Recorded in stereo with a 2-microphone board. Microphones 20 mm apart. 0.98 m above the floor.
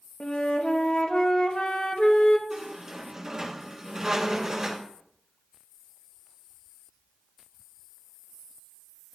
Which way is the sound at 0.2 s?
65° left (ahead or behind).